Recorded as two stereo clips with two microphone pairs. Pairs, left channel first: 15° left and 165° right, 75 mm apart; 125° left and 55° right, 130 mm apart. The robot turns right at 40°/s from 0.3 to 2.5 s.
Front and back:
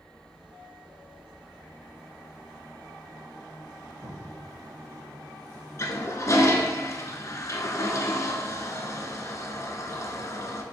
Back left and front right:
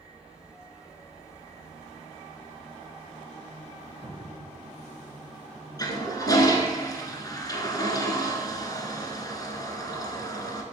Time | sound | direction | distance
4.0 | a cupboard door | 155° left | 3.5 m
5.8 | a toilet flushing | 65° left | 0.9 m